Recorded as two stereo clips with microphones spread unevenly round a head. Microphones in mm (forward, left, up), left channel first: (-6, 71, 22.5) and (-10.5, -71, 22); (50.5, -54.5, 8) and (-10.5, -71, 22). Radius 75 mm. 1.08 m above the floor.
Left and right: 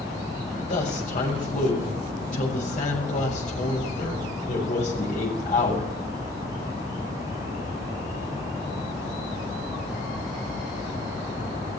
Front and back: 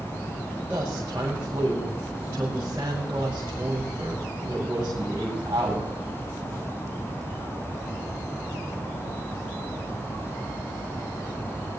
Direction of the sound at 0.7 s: 125° left.